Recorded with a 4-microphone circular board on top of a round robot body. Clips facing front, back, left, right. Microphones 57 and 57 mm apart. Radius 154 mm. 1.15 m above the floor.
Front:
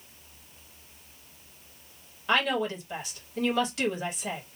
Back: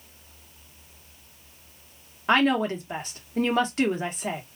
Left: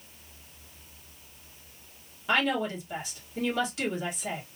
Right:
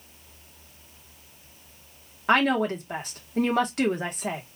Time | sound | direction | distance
2.3 | a woman speaking | 130° right | 1.5 m